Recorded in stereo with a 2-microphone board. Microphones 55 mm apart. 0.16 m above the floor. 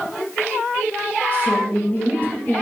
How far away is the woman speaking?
About 3.5 m.